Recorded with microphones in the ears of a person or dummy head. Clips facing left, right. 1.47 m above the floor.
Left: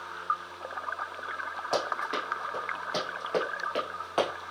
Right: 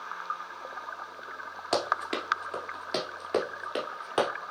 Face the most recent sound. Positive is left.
turn(degrees=-10)  # may be behind; listen again after turning